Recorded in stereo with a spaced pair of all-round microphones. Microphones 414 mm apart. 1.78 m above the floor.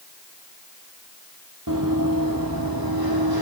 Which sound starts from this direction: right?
Running footsteps, at 1.7 s.